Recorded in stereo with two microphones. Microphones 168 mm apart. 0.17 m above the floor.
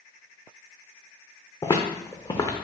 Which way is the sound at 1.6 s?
25° left (ahead or behind).